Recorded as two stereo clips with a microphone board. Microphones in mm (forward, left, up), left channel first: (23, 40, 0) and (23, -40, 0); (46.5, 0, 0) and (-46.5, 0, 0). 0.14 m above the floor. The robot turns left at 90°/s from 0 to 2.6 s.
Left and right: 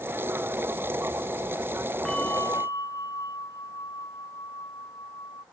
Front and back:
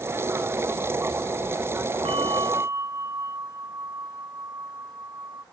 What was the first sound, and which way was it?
A bell, 170° left.